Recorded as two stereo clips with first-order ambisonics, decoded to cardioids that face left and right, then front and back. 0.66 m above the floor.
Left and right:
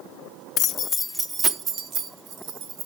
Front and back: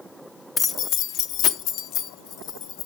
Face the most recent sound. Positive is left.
turn(degrees=-55)